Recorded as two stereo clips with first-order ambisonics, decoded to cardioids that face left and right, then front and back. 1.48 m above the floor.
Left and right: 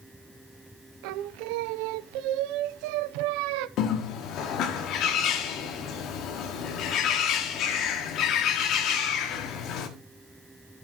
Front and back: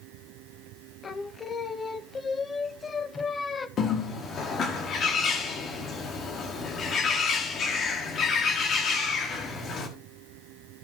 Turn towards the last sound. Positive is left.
turn(degrees=55)